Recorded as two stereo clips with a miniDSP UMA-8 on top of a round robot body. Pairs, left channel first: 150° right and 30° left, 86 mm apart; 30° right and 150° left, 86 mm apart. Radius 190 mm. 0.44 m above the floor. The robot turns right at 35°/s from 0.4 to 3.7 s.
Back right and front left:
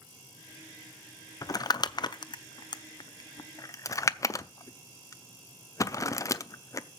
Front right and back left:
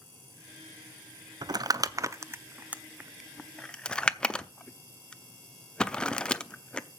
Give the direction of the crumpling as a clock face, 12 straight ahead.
6 o'clock.